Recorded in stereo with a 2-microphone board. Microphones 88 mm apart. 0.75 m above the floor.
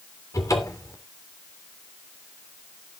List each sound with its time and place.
0.3 s a cupboard door: 35° left (ahead or behind), 3 m